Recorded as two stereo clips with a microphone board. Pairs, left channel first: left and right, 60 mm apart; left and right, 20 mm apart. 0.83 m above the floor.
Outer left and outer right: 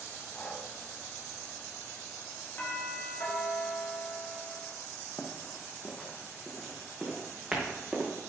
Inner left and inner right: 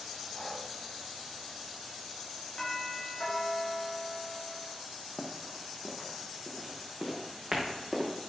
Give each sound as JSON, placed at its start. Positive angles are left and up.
{"t": 0.3, "sound": "breathing", "side_deg": 35, "distance_m": 1.3}
{"t": 2.6, "sound": "a doorbell", "side_deg": 40, "distance_m": 2.0}
{"t": 5.2, "sound": "running footsteps", "side_deg": 25, "distance_m": 1.6}